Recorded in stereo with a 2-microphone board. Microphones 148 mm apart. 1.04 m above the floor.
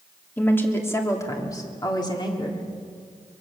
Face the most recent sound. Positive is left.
turn(degrees=35)  # may be behind; listen again after turning